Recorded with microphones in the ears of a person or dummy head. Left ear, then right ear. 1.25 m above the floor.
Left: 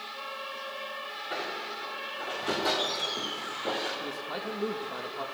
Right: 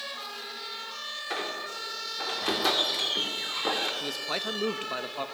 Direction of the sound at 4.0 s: 65° right (ahead or behind).